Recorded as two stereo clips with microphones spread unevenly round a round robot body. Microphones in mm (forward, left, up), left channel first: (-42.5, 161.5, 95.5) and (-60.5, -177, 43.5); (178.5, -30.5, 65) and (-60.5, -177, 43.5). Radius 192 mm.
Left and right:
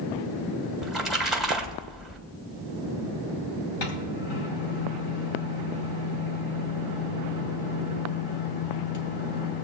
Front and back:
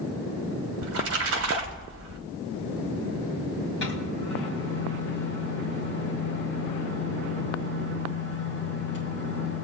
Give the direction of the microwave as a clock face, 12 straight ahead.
9 o'clock.